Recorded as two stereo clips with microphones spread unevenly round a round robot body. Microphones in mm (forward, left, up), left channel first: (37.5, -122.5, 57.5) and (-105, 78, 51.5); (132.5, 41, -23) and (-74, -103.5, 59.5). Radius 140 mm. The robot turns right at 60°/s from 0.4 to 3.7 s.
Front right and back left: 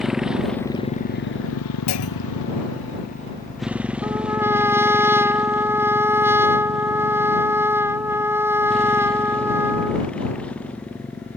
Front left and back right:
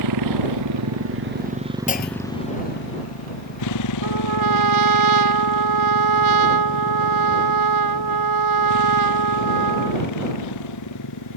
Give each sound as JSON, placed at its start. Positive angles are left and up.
{"t": 0.0, "sound": "a motorcycle", "azimuth_deg": -145}
{"t": 1.9, "sound": "a clunk", "azimuth_deg": -25}
{"t": 4.0, "sound": "a trumpet", "azimuth_deg": -155}